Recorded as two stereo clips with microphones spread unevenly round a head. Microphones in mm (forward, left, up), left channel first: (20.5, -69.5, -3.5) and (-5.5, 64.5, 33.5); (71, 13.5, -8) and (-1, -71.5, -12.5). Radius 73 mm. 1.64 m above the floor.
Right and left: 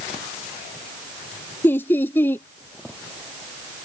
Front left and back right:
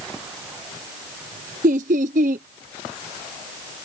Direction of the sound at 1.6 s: 155° right.